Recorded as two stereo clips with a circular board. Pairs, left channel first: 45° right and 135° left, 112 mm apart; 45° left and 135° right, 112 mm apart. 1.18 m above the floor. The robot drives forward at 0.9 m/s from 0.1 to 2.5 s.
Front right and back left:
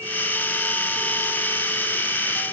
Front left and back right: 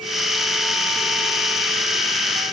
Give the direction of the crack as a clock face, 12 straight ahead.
I don't hear a crack.